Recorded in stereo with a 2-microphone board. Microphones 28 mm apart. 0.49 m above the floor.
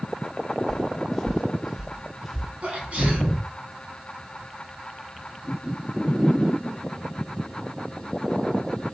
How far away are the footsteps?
About 2.5 m.